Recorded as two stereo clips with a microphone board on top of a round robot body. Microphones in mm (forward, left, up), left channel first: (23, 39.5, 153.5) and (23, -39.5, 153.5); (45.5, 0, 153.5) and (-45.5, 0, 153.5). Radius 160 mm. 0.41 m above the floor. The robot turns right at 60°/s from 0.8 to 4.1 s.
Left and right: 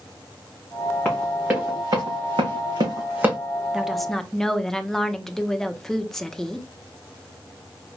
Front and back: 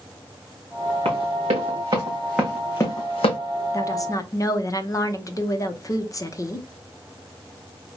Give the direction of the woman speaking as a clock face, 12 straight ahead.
12 o'clock.